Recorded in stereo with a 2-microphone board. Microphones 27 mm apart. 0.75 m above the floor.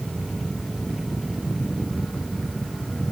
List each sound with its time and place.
Only background noise.